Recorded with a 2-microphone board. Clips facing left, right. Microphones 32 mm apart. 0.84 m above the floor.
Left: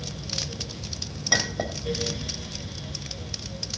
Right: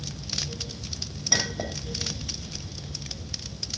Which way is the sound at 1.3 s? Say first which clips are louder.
Left 3 dB; 15° left (ahead or behind).